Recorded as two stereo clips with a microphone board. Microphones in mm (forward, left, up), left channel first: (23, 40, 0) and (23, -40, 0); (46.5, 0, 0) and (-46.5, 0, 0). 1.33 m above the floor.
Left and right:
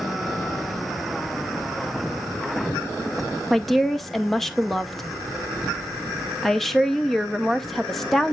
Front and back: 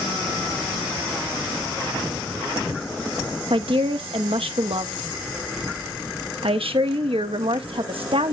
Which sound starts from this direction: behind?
A woman speaking, at 3.5 s.